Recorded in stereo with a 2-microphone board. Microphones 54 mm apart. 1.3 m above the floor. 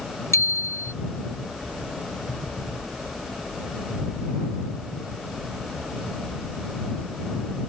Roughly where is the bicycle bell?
Left.